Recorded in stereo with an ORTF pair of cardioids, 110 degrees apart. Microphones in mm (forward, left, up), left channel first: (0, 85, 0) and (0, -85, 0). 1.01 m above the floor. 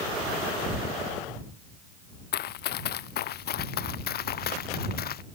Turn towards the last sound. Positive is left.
turn(degrees=60)